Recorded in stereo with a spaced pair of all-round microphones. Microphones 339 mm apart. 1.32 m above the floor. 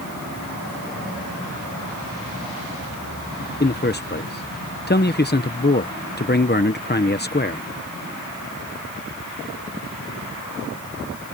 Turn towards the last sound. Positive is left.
turn(degrees=30)  # may be behind; listen again after turning